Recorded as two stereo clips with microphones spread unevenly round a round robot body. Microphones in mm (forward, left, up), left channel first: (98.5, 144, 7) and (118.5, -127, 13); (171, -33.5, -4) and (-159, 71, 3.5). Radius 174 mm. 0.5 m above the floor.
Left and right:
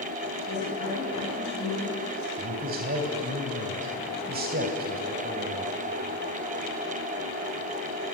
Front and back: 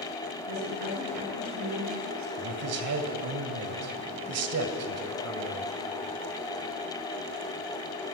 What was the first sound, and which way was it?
A woman speaking, 135° left.